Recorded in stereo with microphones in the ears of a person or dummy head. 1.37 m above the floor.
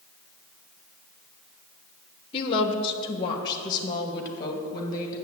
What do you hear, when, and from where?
2.3 s a woman speaking: 30° left (ahead or behind), 1.1 m; by 5.2 s 20° left (ahead or behind), 2.5 m